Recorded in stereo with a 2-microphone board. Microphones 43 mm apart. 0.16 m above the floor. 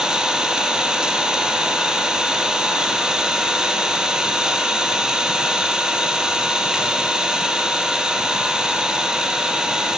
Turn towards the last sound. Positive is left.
turn(degrees=-20)  # may be behind; listen again after turning